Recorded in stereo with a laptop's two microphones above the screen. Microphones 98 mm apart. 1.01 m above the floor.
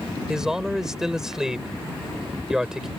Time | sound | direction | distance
0.3 | a man speaking | 5° right (ahead or behind) | ?